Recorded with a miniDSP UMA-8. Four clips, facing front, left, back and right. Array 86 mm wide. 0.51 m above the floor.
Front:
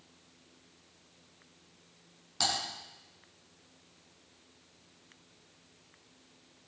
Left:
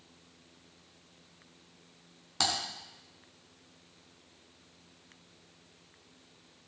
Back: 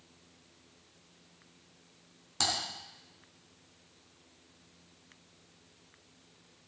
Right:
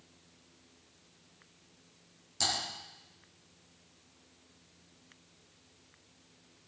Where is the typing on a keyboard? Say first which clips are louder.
Left 3 dB, front 1 dB; 105° left, 3.5 m.